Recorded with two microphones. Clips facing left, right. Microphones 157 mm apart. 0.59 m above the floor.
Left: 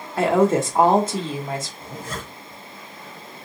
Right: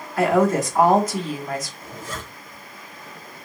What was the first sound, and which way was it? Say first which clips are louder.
A woman speaking: left 1 dB; 25° left (ahead or behind).